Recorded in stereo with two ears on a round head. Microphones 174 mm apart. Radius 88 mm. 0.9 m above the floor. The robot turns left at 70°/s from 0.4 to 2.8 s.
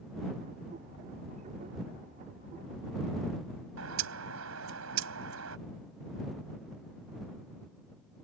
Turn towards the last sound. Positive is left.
turn(degrees=-85)